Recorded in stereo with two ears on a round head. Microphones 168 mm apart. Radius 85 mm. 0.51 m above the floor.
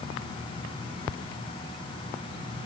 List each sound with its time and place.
Only background noise.